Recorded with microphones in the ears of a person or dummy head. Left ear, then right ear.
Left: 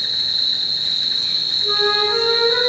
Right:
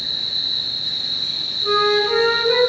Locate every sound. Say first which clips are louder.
0.0 s an insect: left 3 dB; 60° left (ahead or behind), 0.9 m
1.6 s a flute: right 3 dB; 70° right (ahead or behind), 1.2 m